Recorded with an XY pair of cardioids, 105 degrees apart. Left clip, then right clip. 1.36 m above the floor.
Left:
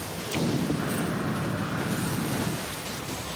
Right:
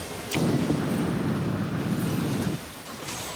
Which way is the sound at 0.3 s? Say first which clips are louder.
Right 3 dB; 20° right.